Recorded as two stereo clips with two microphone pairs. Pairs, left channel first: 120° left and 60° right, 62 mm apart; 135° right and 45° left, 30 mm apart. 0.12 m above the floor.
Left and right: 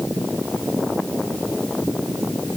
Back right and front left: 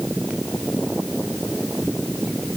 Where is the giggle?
No giggle in this recording.